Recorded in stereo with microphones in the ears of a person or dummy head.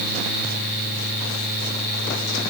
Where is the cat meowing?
I don't hear a cat meowing.